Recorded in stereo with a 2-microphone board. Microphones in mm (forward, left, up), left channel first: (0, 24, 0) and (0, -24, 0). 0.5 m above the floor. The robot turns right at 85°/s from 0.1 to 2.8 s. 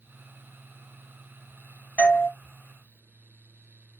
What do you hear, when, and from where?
2.0 s a doorbell: 30° left (ahead or behind), 1.3 m; by 2.3 s 40° left (ahead or behind), 1.3 m